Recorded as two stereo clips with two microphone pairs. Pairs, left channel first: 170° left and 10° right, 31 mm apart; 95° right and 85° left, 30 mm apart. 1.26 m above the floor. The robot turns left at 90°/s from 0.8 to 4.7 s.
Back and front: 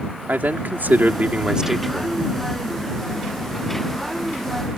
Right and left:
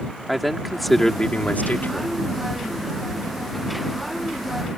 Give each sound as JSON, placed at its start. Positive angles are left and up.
{"t": 0.3, "sound": "a man speaking", "azimuth_deg": 0}